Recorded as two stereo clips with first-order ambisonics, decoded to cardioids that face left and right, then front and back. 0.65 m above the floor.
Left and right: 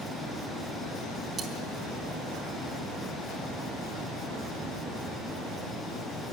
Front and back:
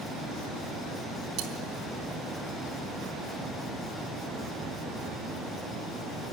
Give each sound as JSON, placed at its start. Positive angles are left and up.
{"t": 1.4, "sound": "cutlery clinking", "azimuth_deg": -155, "distance_m": 3.0}